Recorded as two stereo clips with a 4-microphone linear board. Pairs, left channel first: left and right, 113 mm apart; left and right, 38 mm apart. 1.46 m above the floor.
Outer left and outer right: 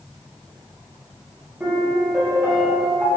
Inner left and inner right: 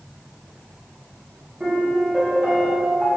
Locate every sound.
1.6 s a piano: 10° right (ahead or behind), 1.5 m